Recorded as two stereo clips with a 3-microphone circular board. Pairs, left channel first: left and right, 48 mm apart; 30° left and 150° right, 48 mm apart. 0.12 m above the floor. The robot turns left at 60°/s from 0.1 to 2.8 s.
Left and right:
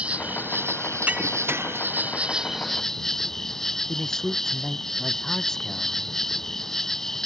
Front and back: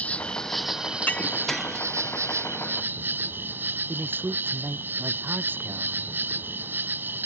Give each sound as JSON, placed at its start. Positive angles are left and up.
{"t": 0.0, "sound": "an insect", "azimuth_deg": -25}
{"t": 1.1, "sound": "breaking glass", "azimuth_deg": -25}
{"t": 3.9, "sound": "a man speaking", "azimuth_deg": 170}